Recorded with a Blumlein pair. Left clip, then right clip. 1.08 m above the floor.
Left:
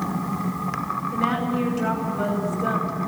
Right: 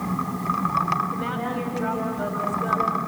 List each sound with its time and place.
1.1 s a woman speaking: 10° left, 5.5 m